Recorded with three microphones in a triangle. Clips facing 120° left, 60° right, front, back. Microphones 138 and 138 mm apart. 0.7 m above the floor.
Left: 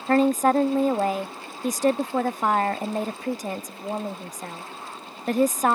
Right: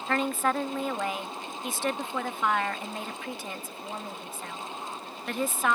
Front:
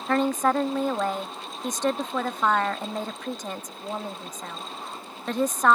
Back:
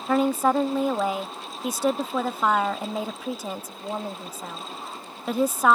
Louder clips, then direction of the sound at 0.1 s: Left 9 dB, back 2 dB; 100° left.